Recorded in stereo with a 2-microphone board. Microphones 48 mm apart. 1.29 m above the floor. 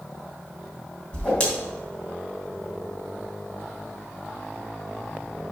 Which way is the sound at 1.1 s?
25° left (ahead or behind).